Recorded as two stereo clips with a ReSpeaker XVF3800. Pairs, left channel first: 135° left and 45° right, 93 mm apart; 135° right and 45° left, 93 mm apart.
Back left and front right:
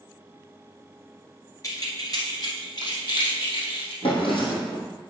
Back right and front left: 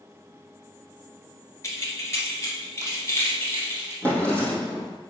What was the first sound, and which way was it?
Keys jangling, 175° left.